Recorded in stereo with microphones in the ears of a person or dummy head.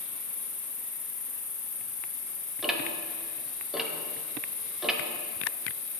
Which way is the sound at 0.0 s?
5° left (ahead or behind).